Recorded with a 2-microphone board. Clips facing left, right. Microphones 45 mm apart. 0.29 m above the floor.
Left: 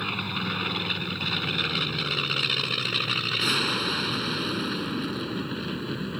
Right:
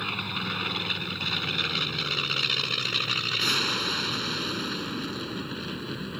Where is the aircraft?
5° left (ahead or behind); by 6.2 s 10° left (ahead or behind).